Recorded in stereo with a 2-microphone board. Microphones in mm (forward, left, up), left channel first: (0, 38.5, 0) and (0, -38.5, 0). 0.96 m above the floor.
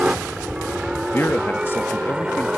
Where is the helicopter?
10° right (ahead or behind); by 2.6 s 15° right (ahead or behind).